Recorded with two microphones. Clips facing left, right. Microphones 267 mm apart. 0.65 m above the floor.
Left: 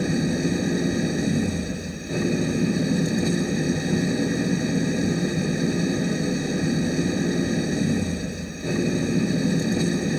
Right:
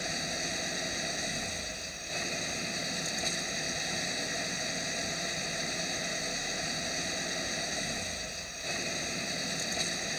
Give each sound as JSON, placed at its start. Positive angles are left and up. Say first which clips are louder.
{"t": 0.0, "sound": "an engine running", "louder": "left 18 dB", "side_deg": 70}